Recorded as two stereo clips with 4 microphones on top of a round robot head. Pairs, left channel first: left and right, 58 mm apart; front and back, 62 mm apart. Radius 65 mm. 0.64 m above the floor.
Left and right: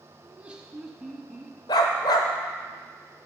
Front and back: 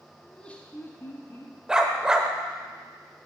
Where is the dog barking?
100° left, 0.8 m.